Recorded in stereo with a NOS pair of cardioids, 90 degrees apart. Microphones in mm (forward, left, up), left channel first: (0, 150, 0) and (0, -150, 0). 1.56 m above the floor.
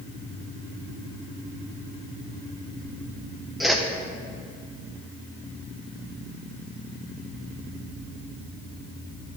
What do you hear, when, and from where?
3.6 s a whoosh: straight ahead, 1.0 m